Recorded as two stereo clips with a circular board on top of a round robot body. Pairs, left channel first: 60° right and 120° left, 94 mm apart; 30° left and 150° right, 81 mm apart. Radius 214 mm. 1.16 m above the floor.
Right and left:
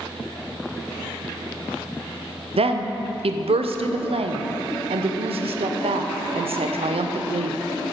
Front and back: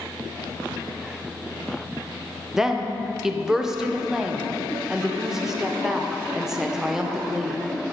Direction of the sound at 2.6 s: 125° left.